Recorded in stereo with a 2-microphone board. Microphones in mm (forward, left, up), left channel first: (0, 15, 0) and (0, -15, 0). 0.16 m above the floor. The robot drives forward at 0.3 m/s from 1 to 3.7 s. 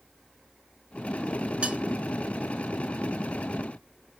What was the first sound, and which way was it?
Cutlery clinking, 40° right (ahead or behind).